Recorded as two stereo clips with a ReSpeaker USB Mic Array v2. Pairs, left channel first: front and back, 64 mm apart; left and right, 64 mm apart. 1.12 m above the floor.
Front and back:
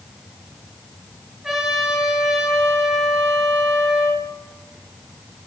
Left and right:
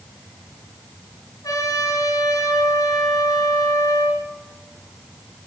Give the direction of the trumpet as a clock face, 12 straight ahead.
9 o'clock.